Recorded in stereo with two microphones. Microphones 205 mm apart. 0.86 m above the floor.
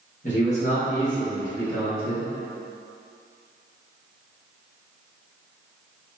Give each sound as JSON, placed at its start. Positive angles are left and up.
{"t": 0.2, "sound": "a man speaking", "side_deg": 40, "distance_m": 1.3}